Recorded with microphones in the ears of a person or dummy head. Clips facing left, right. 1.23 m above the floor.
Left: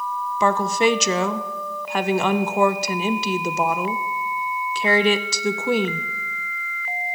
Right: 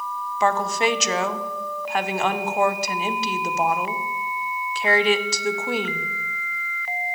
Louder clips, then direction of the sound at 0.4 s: Left 2 dB; 75° left (ahead or behind).